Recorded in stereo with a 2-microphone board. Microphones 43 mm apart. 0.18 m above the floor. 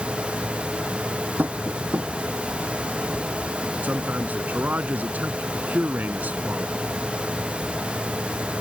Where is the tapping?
40° right (ahead or behind).